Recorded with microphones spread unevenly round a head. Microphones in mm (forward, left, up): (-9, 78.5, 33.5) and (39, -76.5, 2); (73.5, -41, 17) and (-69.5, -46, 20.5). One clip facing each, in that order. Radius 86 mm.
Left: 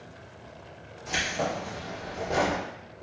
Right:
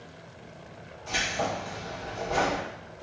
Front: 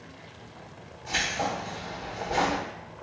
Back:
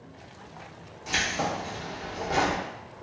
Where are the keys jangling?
170° left, 1.0 m.